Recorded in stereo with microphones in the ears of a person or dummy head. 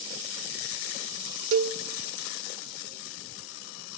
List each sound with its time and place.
1.5 s a cowbell: 75° right (ahead or behind), 0.7 m